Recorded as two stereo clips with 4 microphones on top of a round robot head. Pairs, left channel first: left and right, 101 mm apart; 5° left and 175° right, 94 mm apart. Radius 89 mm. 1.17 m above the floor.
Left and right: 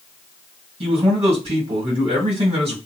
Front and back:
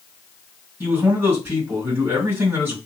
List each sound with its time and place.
0.8 s a man speaking: 105° right, 1.8 m